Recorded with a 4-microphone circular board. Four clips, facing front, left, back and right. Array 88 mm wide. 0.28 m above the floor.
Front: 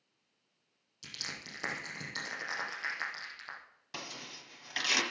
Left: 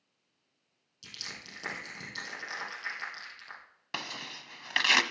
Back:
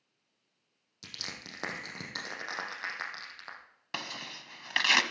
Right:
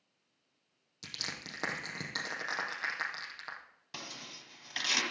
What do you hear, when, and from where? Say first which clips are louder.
1.0 s crushing: right 3 dB, back 1 dB; 140° right, 4 m
3.9 s tearing paper: left 7 dB, back 5 dB; 135° left, 1.1 m